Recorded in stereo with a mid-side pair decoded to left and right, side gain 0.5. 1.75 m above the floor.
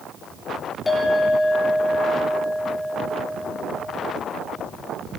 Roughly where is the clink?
Ahead left.